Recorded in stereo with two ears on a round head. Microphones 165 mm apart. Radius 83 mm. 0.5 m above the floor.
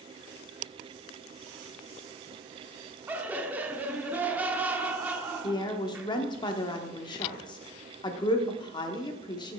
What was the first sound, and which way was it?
Laughter, 10° right (ahead or behind).